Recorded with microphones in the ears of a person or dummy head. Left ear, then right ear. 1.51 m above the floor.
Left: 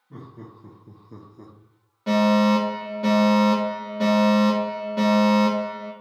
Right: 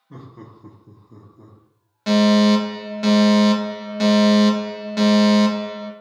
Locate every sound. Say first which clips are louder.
0.1 s laughter: right 1 dB; 50° right (ahead or behind), 1.1 m; by 1.6 s 65° left (ahead or behind), 1.1 m
2.1 s a fire alarm: right 3 dB; 65° right (ahead or behind), 1.4 m